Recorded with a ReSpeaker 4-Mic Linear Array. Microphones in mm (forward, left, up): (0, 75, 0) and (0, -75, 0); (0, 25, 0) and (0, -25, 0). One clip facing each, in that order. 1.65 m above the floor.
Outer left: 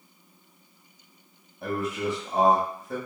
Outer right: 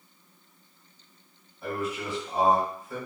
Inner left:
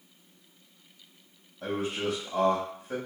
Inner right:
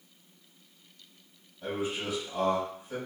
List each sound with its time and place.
1.6 s a man speaking: 60° left (ahead or behind), 1.9 m